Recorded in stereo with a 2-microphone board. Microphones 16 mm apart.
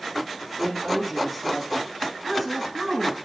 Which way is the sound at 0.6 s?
10° left (ahead or behind).